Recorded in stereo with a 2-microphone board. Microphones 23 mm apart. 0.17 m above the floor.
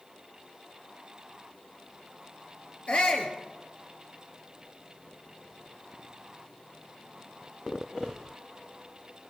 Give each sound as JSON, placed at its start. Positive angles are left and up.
{"t": 2.9, "sound": "a shout", "side_deg": 45, "distance_m": 4.0}